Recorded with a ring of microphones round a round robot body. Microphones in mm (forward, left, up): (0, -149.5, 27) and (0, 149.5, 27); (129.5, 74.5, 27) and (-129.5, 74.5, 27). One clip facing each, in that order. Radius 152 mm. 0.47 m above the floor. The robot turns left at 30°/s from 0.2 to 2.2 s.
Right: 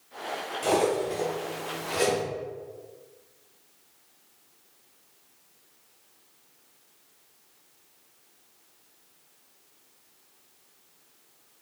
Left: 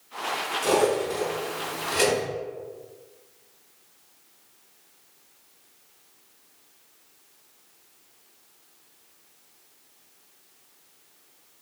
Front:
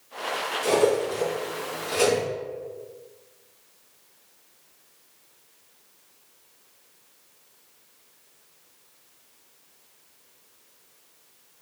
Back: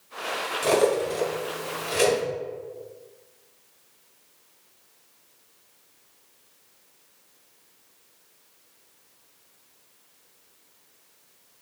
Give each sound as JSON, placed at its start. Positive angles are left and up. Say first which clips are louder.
{"t": 0.6, "sound": "cutlery clinking", "louder": "left 2 dB, even", "azimuth_deg": 165, "distance_m": 1.7}